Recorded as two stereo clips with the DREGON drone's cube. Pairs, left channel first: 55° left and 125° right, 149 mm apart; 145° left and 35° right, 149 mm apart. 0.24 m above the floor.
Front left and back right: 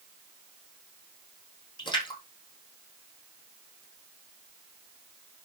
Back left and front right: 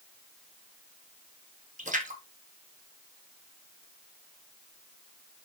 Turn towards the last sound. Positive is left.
turn(degrees=-5)